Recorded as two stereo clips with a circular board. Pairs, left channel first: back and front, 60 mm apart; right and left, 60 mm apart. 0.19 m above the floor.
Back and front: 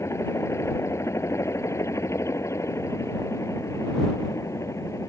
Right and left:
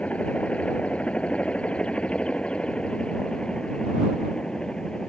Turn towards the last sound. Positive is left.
turn(degrees=-165)